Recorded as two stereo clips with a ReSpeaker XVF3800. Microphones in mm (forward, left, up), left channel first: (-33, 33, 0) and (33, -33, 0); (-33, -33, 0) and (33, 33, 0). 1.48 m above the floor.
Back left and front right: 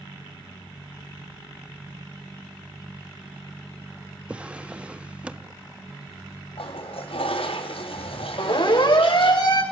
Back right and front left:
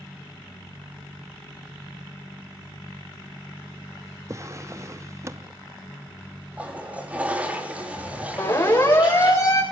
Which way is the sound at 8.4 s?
160° left.